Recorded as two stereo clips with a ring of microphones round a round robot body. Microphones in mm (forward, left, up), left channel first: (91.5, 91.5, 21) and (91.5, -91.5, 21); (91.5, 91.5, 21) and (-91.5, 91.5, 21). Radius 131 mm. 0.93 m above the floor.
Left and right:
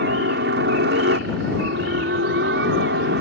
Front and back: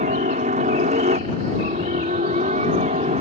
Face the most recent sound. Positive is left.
turn(degrees=-120)